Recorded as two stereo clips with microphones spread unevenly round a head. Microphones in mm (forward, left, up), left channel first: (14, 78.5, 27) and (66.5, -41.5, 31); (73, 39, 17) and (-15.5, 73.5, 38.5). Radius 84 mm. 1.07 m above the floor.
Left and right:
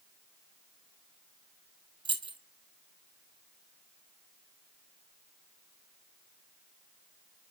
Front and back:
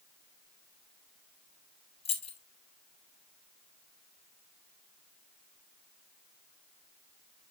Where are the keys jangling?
15° right, 1.6 m.